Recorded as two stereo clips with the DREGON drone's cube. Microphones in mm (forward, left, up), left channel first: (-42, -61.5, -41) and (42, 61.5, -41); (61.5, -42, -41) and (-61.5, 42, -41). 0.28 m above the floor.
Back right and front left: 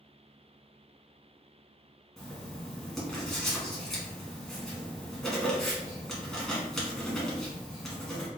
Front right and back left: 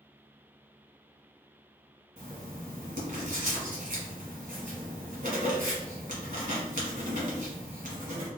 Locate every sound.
2.2 s writing: 150° left, 1.2 m